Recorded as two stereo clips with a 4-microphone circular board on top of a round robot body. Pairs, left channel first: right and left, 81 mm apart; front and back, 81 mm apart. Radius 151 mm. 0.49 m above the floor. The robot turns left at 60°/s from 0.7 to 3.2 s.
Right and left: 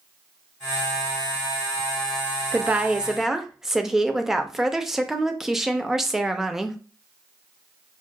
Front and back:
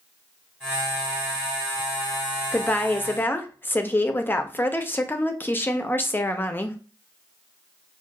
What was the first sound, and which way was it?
A woman speaking, 50° left.